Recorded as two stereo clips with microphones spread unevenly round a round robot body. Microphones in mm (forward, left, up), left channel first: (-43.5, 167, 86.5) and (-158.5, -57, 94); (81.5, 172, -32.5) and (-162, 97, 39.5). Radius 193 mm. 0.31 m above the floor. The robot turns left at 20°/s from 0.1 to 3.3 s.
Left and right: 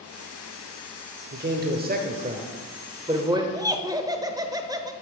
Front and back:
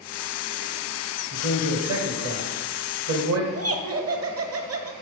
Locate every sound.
1.3 s a man speaking: 150° right, 1.2 m; by 3.4 s 170° left, 1.2 m
3.5 s laughter: 170° left, 1.3 m